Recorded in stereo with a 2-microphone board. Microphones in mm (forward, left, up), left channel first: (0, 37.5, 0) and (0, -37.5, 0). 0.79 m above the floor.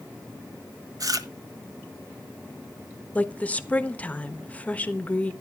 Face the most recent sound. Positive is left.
turn(degrees=20)  # may be behind; listen again after turning